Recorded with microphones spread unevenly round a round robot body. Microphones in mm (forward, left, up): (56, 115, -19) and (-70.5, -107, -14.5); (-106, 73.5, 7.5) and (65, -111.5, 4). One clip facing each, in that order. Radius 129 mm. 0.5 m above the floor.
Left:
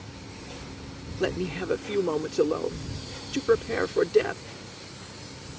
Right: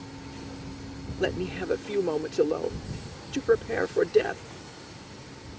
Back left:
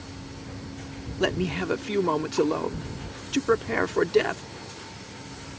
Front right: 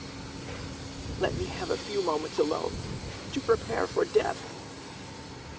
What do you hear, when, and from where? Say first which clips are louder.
1.2 s a man speaking: left 1 dB, back left 5 dB; 140° left